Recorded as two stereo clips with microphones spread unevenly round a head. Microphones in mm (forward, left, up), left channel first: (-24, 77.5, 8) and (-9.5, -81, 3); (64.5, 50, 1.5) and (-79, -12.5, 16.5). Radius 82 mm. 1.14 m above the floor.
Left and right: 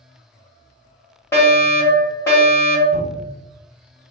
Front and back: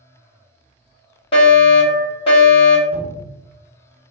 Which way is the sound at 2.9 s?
130° left.